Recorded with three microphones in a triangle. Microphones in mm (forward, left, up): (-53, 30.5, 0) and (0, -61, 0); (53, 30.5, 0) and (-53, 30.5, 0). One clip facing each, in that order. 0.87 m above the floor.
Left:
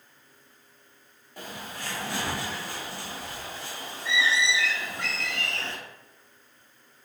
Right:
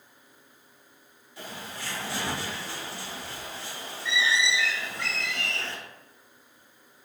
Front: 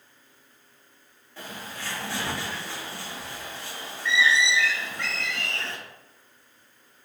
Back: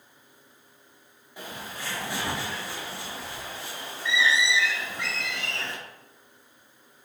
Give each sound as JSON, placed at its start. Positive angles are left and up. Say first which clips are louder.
{"t": 1.4, "sound": "a bird", "louder": "left 1 dB, even", "azimuth_deg": 105, "distance_m": 1.0}